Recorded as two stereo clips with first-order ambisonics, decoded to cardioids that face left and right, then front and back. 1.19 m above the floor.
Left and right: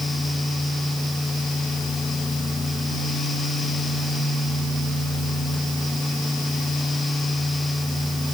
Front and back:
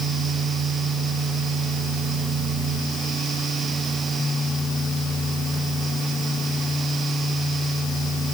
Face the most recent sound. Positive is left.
No sound to turn to.